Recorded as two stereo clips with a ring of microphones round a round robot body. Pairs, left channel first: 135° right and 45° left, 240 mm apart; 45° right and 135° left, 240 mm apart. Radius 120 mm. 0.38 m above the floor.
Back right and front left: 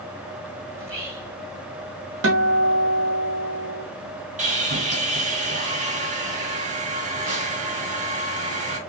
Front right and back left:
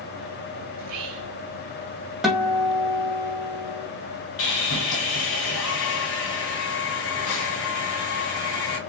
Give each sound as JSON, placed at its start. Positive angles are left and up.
{"t": 0.8, "sound": "whispering", "azimuth_deg": 125, "distance_m": 3.0}
{"t": 2.2, "sound": "a guitar", "azimuth_deg": 45, "distance_m": 1.9}
{"t": 4.4, "sound": "sawing", "azimuth_deg": -15, "distance_m": 2.5}